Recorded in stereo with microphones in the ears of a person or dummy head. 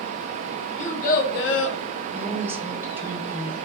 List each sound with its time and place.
0.8 s a child speaking: 40° left (ahead or behind), 0.7 m; by 1.8 s 80° left, 0.5 m
2.1 s a woman speaking: 15° right (ahead or behind), 0.6 m